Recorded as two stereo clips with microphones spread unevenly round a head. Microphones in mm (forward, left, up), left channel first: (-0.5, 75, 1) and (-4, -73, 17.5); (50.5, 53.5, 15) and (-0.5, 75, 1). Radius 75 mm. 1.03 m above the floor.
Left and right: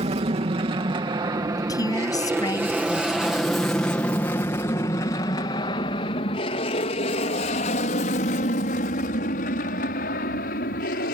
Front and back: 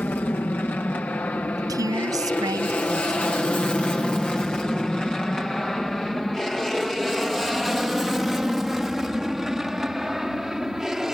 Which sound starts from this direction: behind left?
A woman speaking, at 1.6 s.